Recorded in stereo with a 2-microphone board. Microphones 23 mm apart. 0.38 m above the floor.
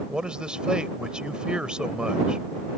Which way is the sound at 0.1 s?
45° right (ahead or behind).